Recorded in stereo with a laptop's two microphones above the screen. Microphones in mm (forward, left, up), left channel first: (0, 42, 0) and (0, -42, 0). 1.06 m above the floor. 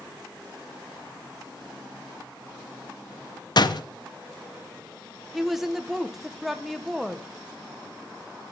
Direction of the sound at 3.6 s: 55° left (ahead or behind).